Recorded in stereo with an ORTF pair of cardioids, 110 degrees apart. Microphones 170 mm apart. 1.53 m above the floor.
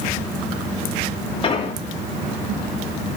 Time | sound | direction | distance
1.4 | an explosion | 35° left | 2.5 m